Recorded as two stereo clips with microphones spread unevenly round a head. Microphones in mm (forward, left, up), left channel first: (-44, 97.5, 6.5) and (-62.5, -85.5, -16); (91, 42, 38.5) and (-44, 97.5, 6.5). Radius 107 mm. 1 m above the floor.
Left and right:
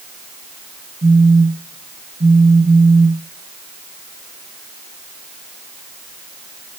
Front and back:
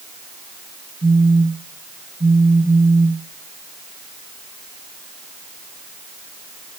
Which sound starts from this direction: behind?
A phone buzzing, at 1.0 s.